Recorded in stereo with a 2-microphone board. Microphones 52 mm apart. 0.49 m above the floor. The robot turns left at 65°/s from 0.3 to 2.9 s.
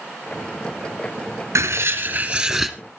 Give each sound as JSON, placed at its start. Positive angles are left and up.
{"t": 1.6, "sound": "writing", "azimuth_deg": -110, "distance_m": 1.9}